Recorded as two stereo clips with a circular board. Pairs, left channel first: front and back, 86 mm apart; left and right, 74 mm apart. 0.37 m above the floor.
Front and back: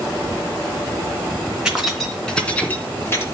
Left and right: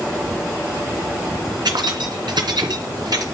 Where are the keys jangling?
100° right, 2.5 m; by 3.2 s 60° right, 3 m.